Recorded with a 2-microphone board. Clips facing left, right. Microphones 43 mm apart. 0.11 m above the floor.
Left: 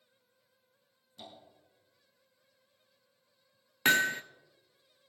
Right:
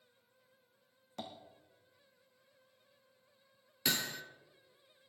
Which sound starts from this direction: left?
Hammering, at 3.9 s.